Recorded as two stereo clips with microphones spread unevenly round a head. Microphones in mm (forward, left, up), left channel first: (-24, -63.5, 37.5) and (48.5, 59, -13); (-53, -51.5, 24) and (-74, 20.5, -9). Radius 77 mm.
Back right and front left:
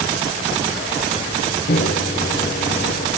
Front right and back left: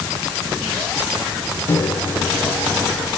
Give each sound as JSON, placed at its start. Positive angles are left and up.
{"t": 1.7, "sound": "a microwave", "azimuth_deg": -110}